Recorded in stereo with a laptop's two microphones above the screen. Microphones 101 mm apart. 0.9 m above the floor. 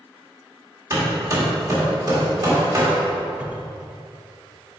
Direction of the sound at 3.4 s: 15° right (ahead or behind).